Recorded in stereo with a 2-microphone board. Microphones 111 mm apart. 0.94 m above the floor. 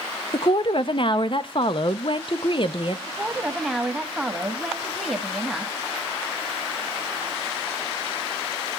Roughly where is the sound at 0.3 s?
Left.